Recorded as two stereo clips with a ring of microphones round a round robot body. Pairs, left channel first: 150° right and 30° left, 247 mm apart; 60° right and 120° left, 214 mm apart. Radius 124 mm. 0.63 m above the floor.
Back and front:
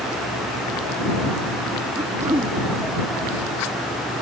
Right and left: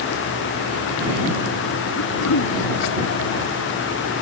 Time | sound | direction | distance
2.0 | throat clearing | 50° right | ?